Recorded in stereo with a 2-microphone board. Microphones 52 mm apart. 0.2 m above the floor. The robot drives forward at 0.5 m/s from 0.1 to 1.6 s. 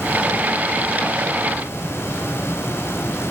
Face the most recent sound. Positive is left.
No sound to turn to.